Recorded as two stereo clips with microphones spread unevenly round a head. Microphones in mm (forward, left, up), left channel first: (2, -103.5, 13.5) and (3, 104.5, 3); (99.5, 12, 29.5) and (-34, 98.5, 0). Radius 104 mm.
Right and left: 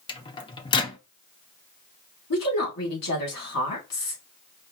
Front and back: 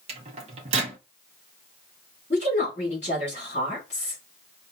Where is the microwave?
150° right, 0.5 m.